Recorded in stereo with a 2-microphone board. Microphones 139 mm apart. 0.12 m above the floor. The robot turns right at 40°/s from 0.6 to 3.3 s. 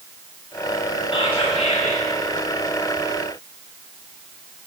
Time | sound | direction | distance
1.1 | whispering | 40° left | 3 m